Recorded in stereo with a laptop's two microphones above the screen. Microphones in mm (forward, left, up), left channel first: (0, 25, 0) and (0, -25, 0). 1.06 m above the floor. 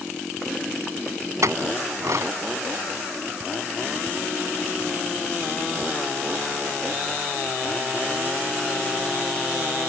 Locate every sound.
1.4 s a clink: 85° right